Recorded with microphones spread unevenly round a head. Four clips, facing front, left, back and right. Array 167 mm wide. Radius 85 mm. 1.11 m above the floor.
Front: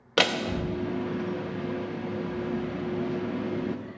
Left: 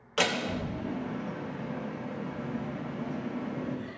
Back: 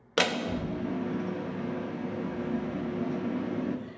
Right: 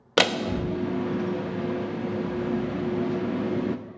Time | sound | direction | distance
0.2 | a door slam | 75° right | 0.7 m